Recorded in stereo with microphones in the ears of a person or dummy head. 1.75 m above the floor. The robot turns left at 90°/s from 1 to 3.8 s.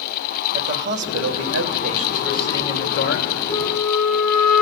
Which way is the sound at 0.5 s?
60° right.